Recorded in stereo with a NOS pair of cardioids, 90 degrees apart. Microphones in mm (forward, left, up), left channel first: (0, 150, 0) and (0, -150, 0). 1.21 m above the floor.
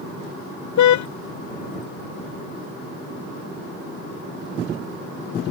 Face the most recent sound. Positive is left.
turn(degrees=70)